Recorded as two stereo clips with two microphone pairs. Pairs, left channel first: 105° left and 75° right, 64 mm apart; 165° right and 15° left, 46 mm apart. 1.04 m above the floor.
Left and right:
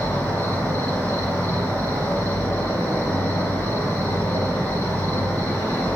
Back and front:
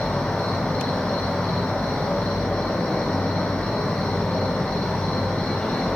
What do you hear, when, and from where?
0.0 s an insect: 155° left, 3 m